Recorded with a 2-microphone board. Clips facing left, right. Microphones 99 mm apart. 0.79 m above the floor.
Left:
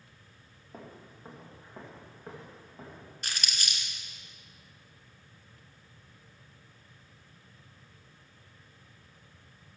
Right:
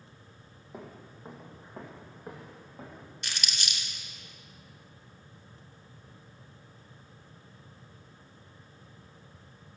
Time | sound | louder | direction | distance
0.7 | footsteps | right 2 dB | 5° right (ahead or behind) | 1.5 m
3.2 | crumpling | left 1 dB | 40° left (ahead or behind) | 1.8 m